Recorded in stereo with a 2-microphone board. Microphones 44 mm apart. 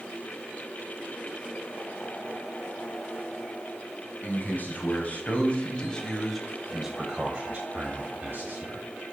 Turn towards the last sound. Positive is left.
turn(degrees=-50)  # may be behind; listen again after turning